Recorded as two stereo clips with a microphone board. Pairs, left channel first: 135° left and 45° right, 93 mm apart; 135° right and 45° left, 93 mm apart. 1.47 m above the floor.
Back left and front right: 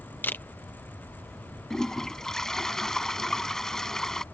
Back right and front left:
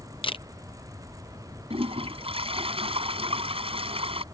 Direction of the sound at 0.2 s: 155° right.